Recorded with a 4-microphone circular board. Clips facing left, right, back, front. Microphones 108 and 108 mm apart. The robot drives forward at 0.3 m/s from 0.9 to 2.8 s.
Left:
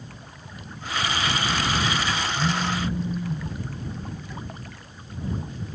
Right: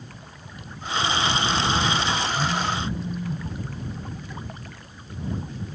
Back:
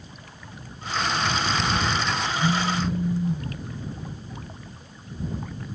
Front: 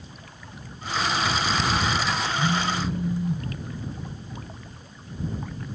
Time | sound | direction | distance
2.3 | a phone buzzing | 140° right | 1.4 m